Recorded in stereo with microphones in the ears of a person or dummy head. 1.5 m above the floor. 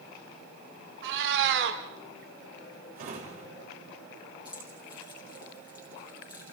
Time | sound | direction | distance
1.0 | a cat meowing | 65° right (ahead or behind) | 2 m
3.0 | a drawer | 50° right (ahead or behind) | 4.5 m
4.5 | keys jangling | 25° left (ahead or behind) | 3 m